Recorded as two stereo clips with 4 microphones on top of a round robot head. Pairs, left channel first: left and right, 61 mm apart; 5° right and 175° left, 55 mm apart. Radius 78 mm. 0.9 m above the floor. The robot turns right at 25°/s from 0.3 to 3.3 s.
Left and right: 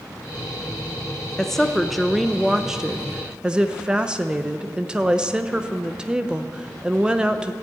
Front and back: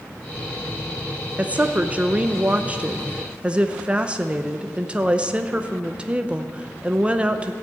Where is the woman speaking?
165° left, 0.7 m; by 7.5 s 145° right, 0.7 m.